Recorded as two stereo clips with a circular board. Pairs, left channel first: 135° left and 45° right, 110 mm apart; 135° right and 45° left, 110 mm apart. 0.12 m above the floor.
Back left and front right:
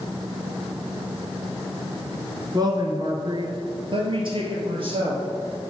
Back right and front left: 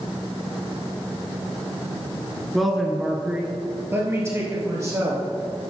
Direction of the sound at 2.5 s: 45° right.